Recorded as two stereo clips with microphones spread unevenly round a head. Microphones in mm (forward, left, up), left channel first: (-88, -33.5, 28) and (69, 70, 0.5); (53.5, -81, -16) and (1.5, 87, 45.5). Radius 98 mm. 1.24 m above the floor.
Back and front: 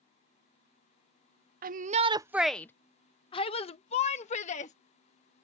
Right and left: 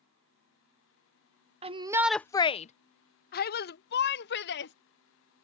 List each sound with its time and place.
1.6 s a shout: 40° left; by 4.7 s 90° right